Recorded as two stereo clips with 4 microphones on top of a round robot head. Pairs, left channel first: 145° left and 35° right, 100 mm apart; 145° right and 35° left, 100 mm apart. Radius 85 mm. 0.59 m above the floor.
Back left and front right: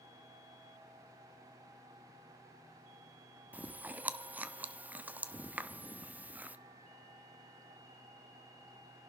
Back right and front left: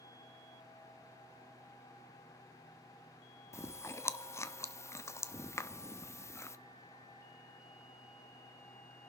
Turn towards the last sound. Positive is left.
turn(degrees=-100)